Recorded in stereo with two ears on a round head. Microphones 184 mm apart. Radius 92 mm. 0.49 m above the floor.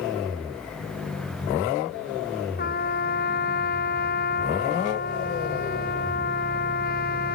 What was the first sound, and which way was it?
A trumpet, 45° left (ahead or behind).